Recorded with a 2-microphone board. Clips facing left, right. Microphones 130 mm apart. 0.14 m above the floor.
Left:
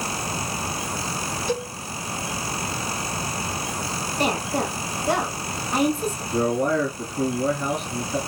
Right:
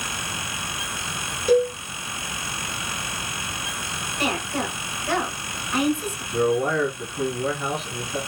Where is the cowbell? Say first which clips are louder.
Right 11 dB; 50° right (ahead or behind), 1.7 m.